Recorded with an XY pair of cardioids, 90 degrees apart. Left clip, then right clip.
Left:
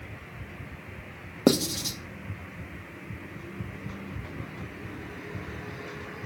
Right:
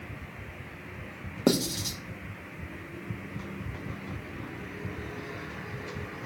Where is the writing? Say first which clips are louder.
Left 3 dB; 30° left, 1.3 m.